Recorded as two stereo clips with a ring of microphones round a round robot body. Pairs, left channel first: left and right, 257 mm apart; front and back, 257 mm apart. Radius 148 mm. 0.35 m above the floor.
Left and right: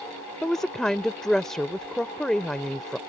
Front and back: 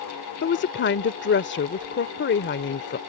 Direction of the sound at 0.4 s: 5° left.